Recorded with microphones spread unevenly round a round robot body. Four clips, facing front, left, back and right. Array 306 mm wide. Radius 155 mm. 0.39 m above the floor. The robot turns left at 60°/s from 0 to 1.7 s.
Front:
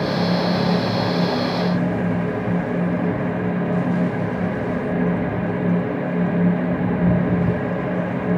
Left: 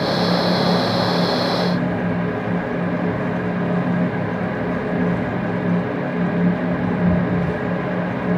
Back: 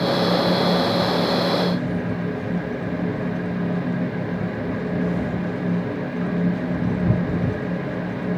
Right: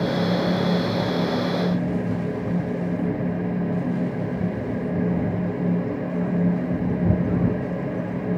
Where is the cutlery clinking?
No cutlery clinking in this recording.